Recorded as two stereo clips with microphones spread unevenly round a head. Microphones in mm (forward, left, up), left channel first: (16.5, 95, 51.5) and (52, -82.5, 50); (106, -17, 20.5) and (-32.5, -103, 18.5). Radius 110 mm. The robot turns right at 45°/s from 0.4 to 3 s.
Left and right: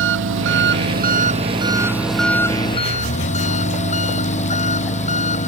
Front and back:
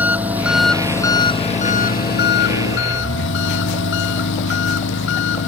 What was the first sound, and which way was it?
An engine running, 70° right.